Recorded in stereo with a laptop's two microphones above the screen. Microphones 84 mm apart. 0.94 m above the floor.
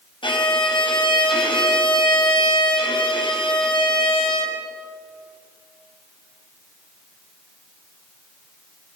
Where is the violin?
80° left, 4.5 m.